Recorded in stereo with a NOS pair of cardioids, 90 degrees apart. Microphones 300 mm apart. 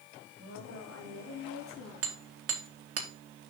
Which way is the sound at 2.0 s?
50° right.